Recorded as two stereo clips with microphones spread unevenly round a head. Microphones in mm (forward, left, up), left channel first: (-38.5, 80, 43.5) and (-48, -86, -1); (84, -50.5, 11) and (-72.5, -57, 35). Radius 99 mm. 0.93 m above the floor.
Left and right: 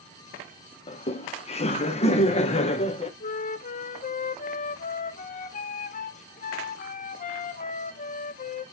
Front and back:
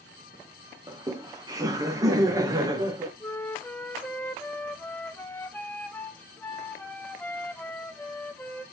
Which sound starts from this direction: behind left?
Laughter, at 0.9 s.